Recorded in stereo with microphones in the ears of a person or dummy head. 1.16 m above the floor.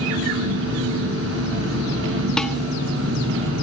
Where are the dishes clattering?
5° left (ahead or behind), 1.2 m.